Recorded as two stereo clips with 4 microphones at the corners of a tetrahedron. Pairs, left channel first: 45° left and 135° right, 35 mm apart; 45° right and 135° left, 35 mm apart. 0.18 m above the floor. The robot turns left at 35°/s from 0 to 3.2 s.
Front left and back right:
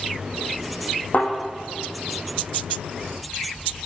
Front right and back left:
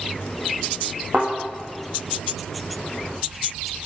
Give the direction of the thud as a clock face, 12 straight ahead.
9 o'clock.